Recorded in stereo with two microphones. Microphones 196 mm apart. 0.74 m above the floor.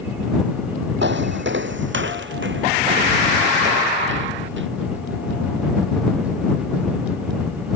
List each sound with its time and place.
1.0 s footsteps: 70° right (ahead or behind)